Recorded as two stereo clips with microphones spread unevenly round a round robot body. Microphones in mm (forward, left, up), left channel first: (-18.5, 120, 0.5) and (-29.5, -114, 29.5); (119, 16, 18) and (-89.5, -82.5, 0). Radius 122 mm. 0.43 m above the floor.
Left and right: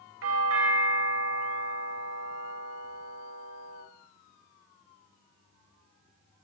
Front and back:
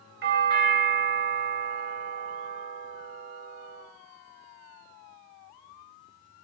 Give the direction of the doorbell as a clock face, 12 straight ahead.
4 o'clock.